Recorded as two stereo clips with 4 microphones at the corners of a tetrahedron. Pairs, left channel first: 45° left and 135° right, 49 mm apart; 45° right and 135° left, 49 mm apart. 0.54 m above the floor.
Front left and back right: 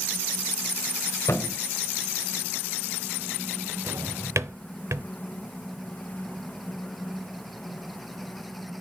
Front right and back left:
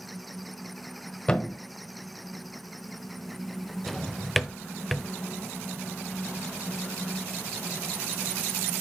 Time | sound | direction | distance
1.3 | a thud | 25° left | 1.2 m
3.9 | a drawer | 130° right | 0.7 m